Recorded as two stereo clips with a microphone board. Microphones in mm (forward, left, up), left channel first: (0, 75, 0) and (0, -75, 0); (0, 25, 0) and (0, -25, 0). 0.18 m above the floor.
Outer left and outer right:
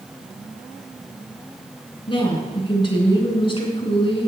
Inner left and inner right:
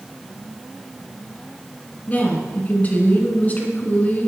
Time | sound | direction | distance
2.1 | a woman speaking | 35° left (ahead or behind) | 2 m